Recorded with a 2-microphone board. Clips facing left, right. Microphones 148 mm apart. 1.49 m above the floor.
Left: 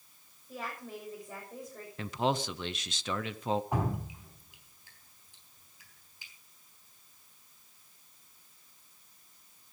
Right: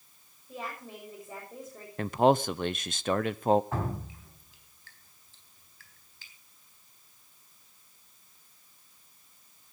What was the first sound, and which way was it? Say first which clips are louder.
A woman speaking: right 1 dB; 5° right (ahead or behind).